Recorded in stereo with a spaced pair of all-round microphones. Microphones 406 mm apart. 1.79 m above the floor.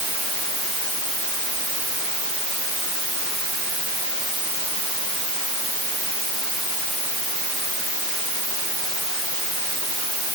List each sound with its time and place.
Only background noise.